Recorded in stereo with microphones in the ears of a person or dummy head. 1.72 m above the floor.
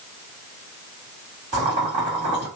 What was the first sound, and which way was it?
Boiling, 20° right (ahead or behind).